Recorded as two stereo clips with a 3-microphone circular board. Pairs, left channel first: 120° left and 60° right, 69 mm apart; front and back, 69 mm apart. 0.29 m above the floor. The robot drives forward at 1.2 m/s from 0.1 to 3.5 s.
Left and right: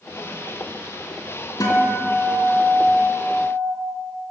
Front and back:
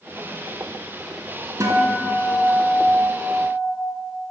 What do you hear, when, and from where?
1.6 s a guitar: 140° left, 4 m; by 3.7 s 155° left, 6 m